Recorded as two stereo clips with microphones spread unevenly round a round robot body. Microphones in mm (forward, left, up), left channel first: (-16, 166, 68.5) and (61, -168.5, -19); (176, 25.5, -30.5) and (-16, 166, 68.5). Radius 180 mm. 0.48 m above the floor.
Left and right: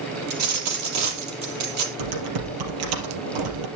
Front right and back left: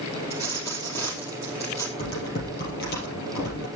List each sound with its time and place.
0.3 s a dropped coin: 120° right, 3.5 m
2.0 s typing on a keyboard: 100° right, 3 m